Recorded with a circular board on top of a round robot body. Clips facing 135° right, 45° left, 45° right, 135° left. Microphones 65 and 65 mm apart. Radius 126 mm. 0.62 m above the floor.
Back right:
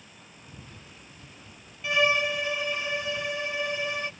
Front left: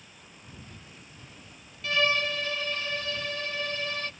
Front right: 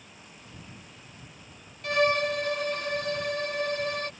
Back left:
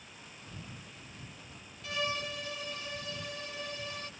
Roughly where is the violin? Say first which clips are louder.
Back right 2 dB, front right 12 dB; ahead right.